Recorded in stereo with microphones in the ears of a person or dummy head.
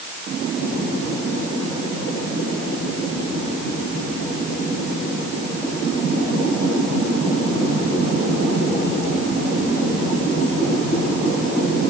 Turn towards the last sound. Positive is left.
No sound to turn to.